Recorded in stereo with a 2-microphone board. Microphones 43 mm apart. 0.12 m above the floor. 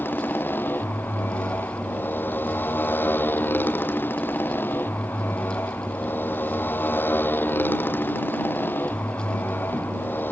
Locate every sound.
0.0 s a motorcycle: 50° left (ahead or behind)